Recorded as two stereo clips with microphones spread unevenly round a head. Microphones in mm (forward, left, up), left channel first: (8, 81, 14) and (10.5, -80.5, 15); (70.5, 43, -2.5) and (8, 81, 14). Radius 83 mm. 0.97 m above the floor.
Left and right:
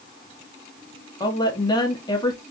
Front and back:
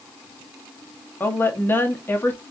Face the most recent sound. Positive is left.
turn(degrees=25)